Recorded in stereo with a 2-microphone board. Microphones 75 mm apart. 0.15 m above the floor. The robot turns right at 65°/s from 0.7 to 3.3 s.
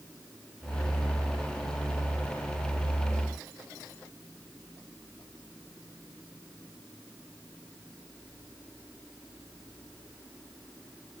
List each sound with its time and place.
Only background noise.